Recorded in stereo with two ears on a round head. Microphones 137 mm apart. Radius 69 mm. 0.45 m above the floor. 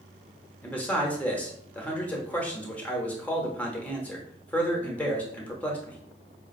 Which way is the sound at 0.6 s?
10° left (ahead or behind).